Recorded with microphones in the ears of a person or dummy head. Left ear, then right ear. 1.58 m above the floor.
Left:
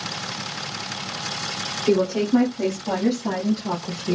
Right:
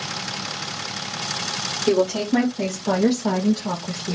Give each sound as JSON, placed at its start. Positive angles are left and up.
{"t": 1.9, "sound": "a woman speaking", "side_deg": -75, "distance_m": 1.6}